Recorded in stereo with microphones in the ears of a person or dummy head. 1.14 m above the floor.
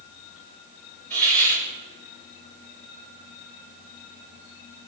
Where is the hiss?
10° left (ahead or behind), 9 m.